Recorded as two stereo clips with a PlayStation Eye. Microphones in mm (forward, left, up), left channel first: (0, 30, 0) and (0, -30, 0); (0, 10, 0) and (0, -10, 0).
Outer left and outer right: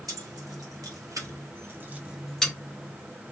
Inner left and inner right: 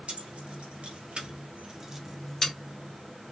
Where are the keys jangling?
85° right, 1.3 m; by 2.5 s 10° left (ahead or behind), 0.6 m.